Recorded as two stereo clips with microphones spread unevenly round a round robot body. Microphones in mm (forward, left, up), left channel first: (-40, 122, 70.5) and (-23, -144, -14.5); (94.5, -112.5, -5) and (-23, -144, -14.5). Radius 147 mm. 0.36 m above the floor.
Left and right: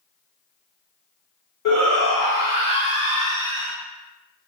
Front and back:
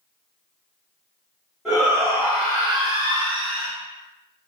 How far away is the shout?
About 1.1 m.